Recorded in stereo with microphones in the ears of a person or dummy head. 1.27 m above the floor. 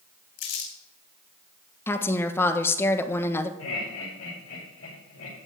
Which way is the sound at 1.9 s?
10° left (ahead or behind).